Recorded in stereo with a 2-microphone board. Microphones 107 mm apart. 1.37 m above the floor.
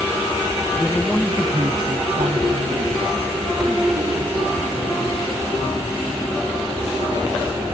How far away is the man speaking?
About 1.2 m.